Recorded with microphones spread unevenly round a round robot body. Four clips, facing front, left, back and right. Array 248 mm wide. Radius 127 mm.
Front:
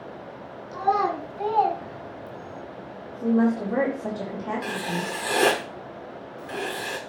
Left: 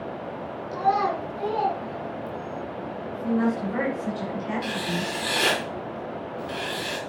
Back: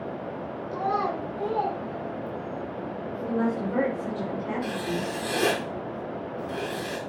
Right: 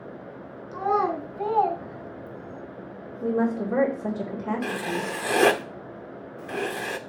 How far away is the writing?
About 0.6 m.